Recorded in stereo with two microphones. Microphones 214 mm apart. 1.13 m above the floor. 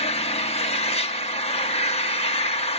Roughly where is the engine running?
Left.